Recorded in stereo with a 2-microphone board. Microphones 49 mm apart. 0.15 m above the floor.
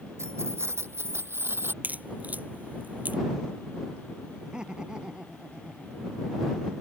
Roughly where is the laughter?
Centre.